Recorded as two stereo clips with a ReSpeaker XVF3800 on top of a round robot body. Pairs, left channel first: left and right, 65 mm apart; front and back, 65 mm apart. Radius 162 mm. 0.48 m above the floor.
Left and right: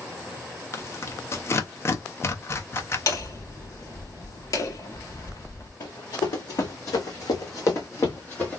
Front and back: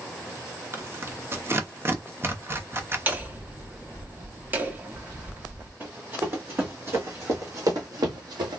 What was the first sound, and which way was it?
Tearing paper, 135° left.